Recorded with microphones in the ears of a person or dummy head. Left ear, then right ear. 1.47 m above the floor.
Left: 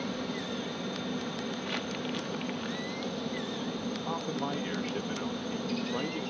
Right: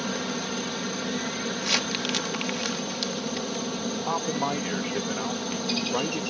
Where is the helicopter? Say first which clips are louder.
Right 6 dB; 40° right (ahead or behind).